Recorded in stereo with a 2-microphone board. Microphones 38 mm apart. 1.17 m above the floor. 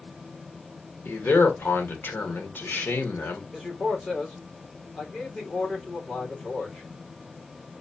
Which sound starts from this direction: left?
A man speaking, at 1.1 s.